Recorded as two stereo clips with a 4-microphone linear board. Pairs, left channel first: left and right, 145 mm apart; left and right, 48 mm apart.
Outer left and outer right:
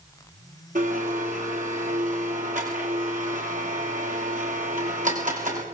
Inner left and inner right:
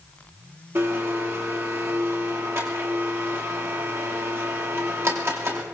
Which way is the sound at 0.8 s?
65° right (ahead or behind).